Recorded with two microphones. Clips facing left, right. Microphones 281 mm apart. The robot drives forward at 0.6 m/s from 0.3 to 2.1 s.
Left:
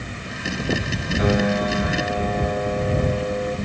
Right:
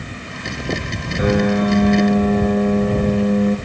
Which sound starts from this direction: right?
A piano, at 1.2 s.